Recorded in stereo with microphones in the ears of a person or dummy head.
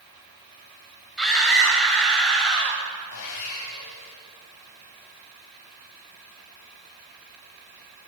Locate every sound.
1.2 s a scream: centre (ahead or behind), 6.5 m
3.1 s sawing: 65° left (ahead or behind), 4.5 m